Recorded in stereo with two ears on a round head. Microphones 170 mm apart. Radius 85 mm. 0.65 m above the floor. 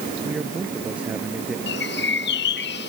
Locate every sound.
0.2 s a man speaking: 10° right (ahead or behind); by 1.6 s 5° right (ahead or behind)
1.7 s a bird: 60° left (ahead or behind)